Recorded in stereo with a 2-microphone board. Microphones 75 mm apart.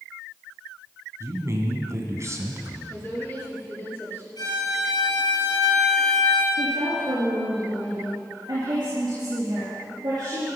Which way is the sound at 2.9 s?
25° left (ahead or behind).